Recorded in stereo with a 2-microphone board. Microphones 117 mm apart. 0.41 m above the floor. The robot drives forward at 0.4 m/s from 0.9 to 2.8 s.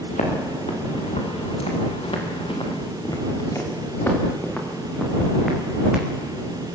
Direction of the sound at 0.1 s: 75° left (ahead or behind).